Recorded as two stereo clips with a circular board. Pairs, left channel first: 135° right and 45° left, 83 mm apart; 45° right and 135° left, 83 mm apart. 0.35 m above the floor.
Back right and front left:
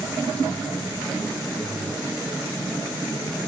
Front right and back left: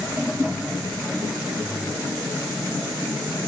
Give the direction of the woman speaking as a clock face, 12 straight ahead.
I don't hear a woman speaking.